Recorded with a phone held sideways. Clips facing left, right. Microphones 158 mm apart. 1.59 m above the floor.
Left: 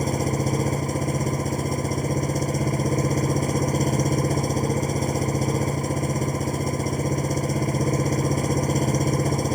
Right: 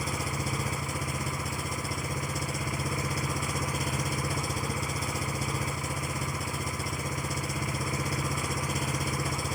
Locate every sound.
0.0 s an engine running: 45° left (ahead or behind)